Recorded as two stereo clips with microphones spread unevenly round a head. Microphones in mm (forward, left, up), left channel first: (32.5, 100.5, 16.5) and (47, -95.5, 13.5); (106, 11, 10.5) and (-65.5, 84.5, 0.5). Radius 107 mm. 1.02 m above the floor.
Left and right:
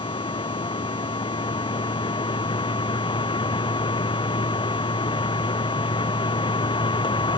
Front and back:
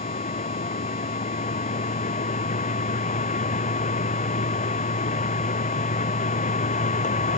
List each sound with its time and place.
0.0 s a machine running: 30° left